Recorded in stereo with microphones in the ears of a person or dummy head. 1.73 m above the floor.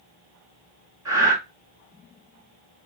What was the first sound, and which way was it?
Breathing, 20° right (ahead or behind).